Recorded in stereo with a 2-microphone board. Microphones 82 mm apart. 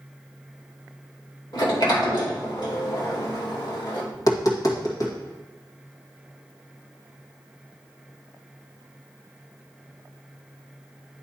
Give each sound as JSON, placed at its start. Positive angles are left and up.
{"t": 1.5, "sound": "a sliding door", "side_deg": 60, "distance_m": 2.0}
{"t": 4.1, "sound": "tapping", "side_deg": 45, "distance_m": 1.9}